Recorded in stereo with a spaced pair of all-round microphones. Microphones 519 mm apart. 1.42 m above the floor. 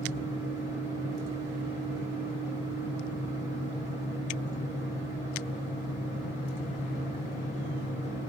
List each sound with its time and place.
0.0 s a fan: 60° left (ahead or behind), 1.0 m